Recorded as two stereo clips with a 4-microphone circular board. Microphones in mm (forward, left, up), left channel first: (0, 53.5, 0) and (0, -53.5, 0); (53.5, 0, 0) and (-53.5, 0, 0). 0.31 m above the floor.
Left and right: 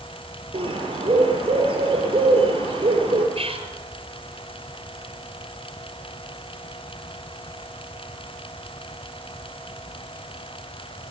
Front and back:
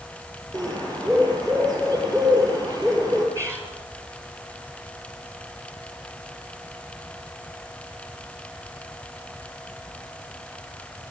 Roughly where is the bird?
Behind right.